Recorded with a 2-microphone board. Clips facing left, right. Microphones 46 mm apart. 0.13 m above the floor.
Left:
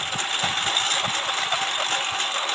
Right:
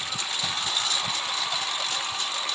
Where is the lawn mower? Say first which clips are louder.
Left 5 dB; 50° left (ahead or behind).